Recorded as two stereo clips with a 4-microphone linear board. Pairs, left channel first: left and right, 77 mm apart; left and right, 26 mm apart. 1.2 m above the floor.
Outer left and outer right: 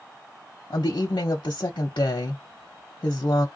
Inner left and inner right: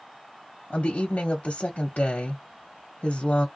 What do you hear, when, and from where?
0.7 s a woman speaking: 75° left (ahead or behind), 0.7 m